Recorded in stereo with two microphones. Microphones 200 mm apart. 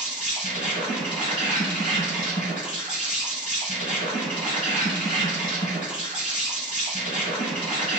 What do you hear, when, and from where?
0.0 s an insect: 40° left (ahead or behind), 1.9 m